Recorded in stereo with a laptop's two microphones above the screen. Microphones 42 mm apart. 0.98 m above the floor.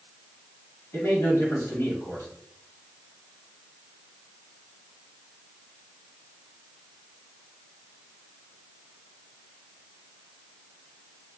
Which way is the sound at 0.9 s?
70° left (ahead or behind).